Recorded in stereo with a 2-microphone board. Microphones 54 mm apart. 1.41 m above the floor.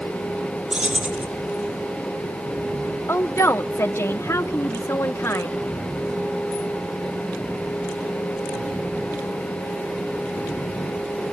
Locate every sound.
0.7 s keys jangling: 20° right (ahead or behind), 2 m
3.1 s a woman speaking: 50° left (ahead or behind), 1.4 m